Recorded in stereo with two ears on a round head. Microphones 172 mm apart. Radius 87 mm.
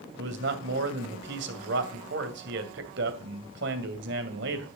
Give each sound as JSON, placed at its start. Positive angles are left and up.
{"t": 0.2, "sound": "a man speaking", "side_deg": -65, "distance_m": 2.5}